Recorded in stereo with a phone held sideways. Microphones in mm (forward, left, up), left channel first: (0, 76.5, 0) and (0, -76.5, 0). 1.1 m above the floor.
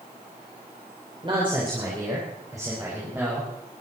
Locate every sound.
1.2 s a man speaking: 35° right (ahead or behind), 4.5 m; by 3.5 s 15° right (ahead or behind), 6.5 m